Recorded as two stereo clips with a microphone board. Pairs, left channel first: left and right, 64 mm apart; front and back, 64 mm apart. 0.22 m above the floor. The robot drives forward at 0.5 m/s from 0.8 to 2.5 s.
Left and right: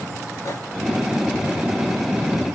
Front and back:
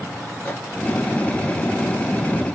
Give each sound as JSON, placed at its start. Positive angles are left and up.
{"t": 0.5, "sound": "a microwave", "azimuth_deg": 60, "distance_m": 2.0}